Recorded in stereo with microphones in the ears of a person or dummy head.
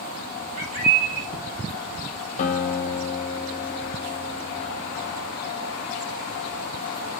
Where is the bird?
35° right (ahead or behind), 1.1 m.